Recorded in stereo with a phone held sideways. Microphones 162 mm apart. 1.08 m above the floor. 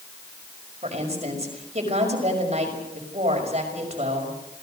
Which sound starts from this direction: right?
A woman speaking, at 0.8 s.